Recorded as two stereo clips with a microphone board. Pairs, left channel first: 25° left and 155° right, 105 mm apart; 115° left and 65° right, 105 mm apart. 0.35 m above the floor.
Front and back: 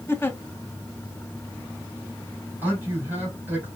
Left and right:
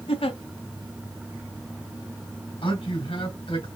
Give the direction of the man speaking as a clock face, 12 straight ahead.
8 o'clock.